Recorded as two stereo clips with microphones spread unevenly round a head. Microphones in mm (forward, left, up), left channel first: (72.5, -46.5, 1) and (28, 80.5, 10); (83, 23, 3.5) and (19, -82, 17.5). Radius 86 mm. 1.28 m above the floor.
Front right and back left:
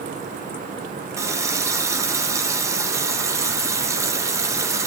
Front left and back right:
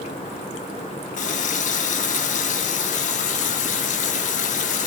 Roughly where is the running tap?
Ahead left.